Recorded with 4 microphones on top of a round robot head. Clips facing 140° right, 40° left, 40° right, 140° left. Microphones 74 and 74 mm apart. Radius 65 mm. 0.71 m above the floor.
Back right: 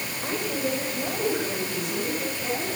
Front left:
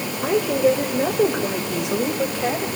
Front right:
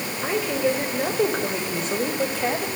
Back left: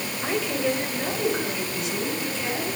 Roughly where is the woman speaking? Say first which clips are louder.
Front left 11 dB, front right 2 dB; ahead left.